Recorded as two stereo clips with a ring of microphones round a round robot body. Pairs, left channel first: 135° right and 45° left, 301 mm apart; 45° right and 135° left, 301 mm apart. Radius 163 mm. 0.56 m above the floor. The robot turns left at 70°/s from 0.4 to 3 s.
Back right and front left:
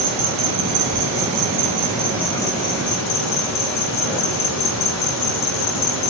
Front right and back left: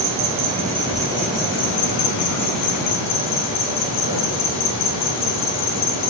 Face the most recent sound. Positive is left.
turn(degrees=-95)